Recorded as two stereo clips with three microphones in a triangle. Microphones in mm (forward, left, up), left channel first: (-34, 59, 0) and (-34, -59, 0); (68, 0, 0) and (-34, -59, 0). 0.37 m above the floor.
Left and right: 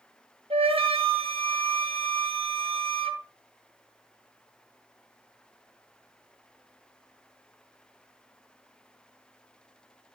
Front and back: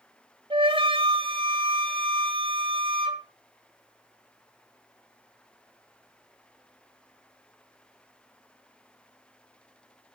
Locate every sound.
0.5 s a flute: 115° right, 2 m